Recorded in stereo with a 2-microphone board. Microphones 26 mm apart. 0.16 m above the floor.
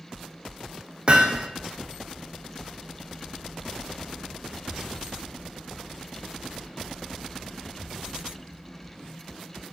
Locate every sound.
1.1 s hammering: 40° right (ahead or behind), 3 m